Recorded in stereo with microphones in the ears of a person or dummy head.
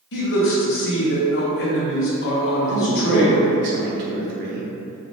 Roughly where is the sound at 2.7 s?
Right.